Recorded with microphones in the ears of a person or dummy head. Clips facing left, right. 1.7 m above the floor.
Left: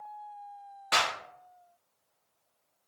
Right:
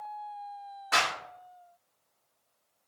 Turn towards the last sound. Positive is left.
turn(degrees=30)  # may be behind; listen again after turning